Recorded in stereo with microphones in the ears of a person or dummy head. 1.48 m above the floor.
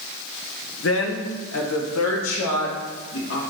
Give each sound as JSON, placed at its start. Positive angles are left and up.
{"t": 0.8, "sound": "a woman speaking", "side_deg": 75, "distance_m": 0.8}